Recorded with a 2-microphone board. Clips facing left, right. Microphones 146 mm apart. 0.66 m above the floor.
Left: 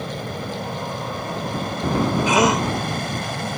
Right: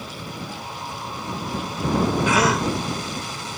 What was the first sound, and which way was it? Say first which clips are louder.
An aircraft: left 5 dB; 65° left (ahead or behind).